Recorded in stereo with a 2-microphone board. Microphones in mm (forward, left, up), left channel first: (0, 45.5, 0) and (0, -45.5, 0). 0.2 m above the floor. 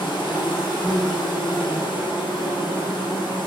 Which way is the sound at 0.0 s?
60° left (ahead or behind).